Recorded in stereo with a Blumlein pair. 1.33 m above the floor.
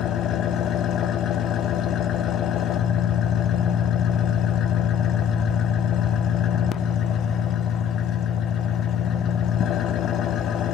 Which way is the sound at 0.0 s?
30° left.